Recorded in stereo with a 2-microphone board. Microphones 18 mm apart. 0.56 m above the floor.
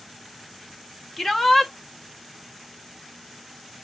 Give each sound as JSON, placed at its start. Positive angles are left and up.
{"t": 1.2, "sound": "a shout", "side_deg": 20, "distance_m": 1.2}